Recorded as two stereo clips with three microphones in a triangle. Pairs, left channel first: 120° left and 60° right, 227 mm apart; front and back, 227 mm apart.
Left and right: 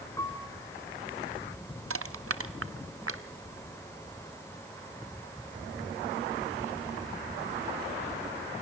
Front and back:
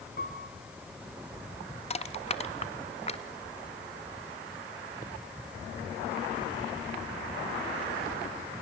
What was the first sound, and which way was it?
A piano, 45° left.